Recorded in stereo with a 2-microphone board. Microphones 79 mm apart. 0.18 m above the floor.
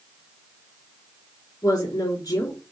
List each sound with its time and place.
1.6 s a woman speaking: 60° left (ahead or behind), 2.5 m